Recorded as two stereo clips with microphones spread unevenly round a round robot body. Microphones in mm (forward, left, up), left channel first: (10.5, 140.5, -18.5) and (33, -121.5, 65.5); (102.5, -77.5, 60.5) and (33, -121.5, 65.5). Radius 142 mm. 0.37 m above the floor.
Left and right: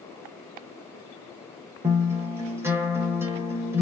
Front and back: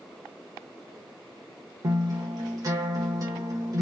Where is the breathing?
I don't hear breathing.